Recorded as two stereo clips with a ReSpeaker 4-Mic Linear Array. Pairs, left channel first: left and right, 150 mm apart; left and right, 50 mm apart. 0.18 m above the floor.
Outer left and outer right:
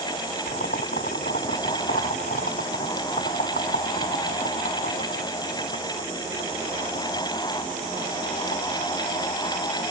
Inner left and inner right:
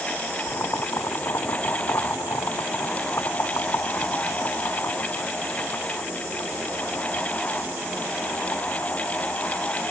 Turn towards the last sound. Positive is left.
turn(degrees=80)